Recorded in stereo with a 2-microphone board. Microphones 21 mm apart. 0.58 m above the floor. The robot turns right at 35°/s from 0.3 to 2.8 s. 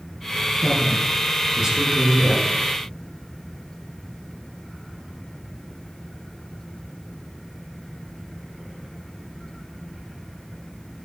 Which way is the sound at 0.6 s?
175° left.